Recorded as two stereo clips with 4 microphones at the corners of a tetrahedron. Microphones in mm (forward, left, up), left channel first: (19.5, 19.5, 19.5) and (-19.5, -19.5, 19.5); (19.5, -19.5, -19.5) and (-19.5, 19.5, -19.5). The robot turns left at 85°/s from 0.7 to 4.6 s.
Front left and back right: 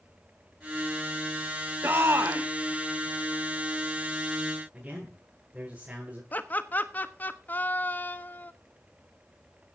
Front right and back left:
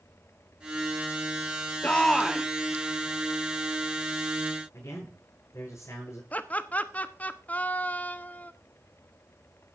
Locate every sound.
1.8 s a shout: 100° right, 1.9 m; by 2.5 s 155° right, 1.9 m
4.7 s a man speaking: 75° right, 8.5 m
6.3 s laughter: straight ahead, 1.2 m